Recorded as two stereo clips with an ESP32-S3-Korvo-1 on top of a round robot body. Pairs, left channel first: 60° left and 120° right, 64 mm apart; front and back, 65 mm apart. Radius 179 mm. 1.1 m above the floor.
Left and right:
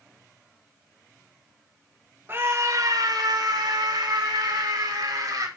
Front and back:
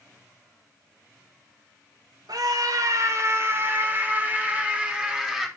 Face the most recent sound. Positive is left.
turn(degrees=-90)